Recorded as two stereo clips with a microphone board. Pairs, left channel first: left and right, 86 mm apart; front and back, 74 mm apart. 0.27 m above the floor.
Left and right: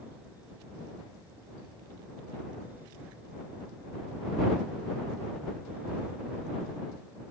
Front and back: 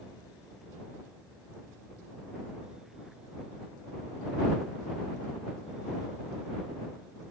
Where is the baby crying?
No baby crying in this recording.